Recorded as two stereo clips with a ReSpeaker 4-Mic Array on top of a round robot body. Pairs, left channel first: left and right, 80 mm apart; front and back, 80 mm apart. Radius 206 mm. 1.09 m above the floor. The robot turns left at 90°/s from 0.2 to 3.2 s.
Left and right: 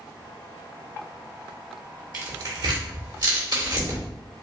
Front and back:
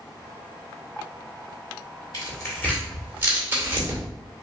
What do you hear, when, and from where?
2.1 s tearing paper: 20° right, 2 m; by 4.0 s 115° right, 2 m